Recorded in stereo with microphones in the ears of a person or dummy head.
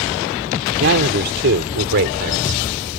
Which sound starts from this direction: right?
A man speaking, at 0.8 s.